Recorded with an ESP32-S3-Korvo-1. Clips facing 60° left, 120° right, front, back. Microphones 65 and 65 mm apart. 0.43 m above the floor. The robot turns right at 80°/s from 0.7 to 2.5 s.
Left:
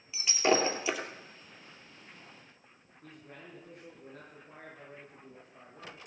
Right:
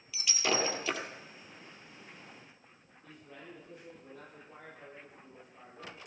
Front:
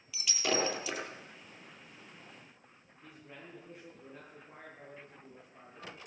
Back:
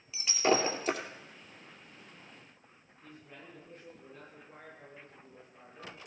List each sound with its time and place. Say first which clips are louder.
0.1 s breaking glass: left 5 dB, back 5 dB; 120° left, 2.5 m; by 1.0 s 145° left, 2.5 m
3.0 s a man speaking: left 1 dB, even; 80° left, 9 m